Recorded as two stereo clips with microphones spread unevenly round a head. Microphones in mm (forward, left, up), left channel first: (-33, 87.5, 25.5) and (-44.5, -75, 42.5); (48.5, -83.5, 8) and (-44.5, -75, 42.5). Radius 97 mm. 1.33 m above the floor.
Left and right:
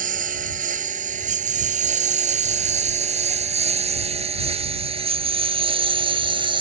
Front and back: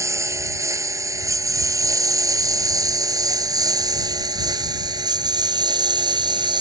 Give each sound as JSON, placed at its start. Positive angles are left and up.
{"t": 0.0, "sound": "a lawn mower", "azimuth_deg": -130}